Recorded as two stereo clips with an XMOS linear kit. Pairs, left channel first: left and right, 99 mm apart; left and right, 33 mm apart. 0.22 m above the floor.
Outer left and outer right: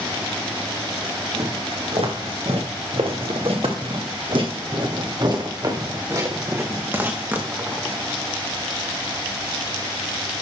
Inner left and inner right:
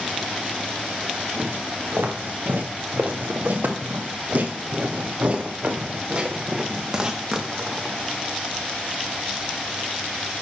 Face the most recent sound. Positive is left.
turn(degrees=-10)  # may be behind; listen again after turning